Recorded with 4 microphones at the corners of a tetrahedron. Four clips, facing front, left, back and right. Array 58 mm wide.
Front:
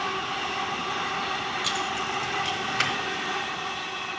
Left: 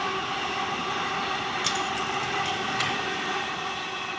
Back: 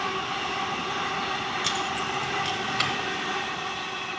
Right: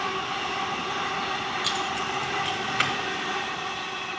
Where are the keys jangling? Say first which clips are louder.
Even, even; 145° left, 1.1 m; by 2.9 s 65° right, 1.1 m.